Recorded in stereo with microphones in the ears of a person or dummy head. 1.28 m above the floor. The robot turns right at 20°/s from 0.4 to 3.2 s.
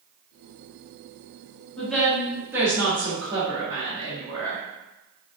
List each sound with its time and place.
1.8 s a woman speaking: 5° left (ahead or behind), 1.5 m; by 4.6 s 25° right (ahead or behind), 1.5 m